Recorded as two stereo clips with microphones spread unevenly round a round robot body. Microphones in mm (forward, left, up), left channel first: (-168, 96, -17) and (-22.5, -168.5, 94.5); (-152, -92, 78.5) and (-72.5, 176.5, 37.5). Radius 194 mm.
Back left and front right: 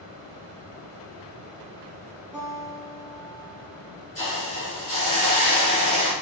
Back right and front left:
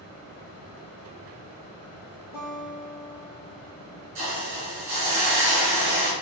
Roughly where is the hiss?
Ahead left.